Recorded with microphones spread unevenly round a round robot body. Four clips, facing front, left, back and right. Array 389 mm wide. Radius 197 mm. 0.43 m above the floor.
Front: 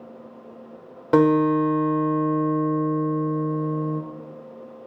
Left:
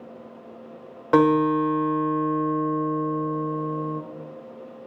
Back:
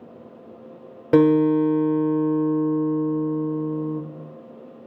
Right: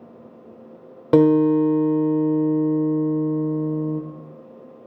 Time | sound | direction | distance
1.1 | a guitar | 130° right | 1.3 m